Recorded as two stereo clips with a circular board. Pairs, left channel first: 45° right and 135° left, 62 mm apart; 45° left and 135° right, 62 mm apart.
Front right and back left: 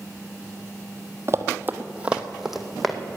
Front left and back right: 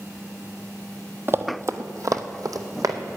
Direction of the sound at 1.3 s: 175° left.